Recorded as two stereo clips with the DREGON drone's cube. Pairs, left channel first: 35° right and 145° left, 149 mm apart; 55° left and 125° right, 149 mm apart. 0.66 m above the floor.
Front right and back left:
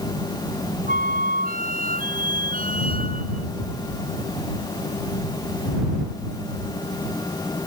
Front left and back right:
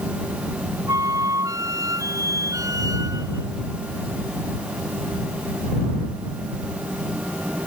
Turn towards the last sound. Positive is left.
turn(degrees=165)